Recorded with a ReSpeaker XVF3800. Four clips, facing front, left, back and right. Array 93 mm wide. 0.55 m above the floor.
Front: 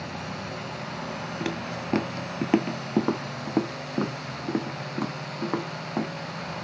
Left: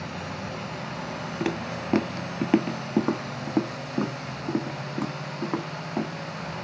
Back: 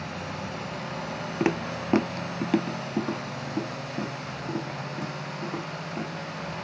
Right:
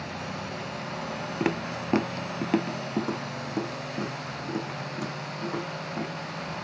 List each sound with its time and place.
1.4 s footsteps: 150° right, 0.6 m; by 6.1 s 35° left, 2.5 m